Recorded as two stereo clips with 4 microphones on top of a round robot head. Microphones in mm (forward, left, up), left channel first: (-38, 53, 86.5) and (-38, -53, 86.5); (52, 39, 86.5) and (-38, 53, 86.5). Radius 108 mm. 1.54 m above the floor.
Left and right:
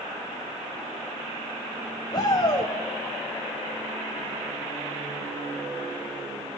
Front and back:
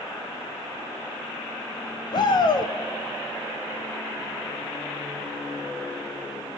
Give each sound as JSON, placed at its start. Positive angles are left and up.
{"t": 2.1, "sound": "a shout", "azimuth_deg": 35, "distance_m": 1.0}